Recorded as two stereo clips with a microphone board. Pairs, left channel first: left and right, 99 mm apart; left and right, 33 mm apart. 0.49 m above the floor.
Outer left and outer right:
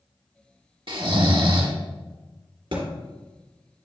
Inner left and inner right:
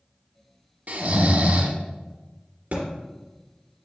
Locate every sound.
0.9 s snoring: 60° right (ahead or behind), 0.8 m
2.7 s a thud: 60° right (ahead or behind), 2.5 m